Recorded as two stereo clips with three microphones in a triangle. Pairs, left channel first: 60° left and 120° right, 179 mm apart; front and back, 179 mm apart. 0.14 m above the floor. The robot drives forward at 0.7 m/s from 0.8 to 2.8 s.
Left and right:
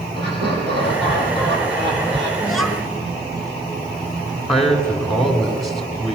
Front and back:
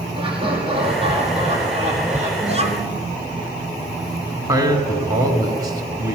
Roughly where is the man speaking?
Behind left.